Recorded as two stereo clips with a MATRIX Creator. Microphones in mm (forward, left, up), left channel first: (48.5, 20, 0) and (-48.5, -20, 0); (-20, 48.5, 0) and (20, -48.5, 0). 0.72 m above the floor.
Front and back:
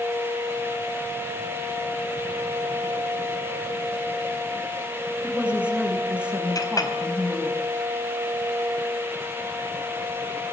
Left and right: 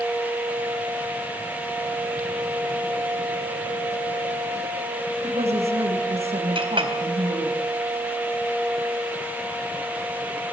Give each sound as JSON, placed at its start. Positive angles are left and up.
{"t": 5.2, "sound": "a woman speaking", "azimuth_deg": -80, "distance_m": 6.0}
{"t": 6.5, "sound": "a clink", "azimuth_deg": -30, "distance_m": 3.5}